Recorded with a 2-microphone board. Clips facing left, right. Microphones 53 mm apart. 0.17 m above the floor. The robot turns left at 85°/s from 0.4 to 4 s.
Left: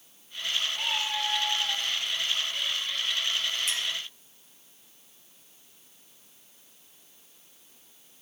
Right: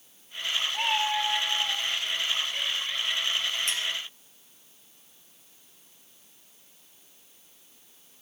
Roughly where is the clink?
Centre.